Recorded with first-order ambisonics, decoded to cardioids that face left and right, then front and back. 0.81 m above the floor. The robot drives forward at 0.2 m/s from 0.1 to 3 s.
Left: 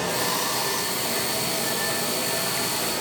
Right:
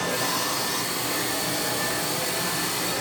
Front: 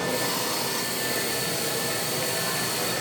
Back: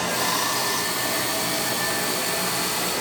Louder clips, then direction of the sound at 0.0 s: Left 1 dB, back 3 dB; 155° left.